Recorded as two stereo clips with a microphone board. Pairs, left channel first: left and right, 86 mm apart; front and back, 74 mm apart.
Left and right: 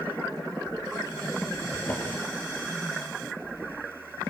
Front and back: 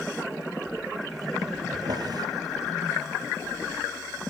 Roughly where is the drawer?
Behind left.